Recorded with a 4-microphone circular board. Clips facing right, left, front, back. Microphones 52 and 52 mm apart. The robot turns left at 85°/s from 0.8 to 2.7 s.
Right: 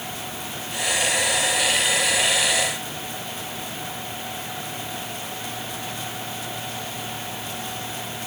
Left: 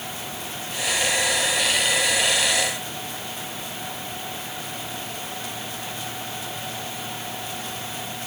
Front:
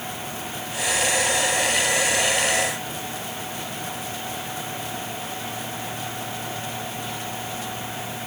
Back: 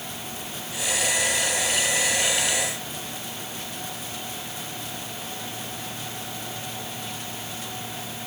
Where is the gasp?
No gasp in this recording.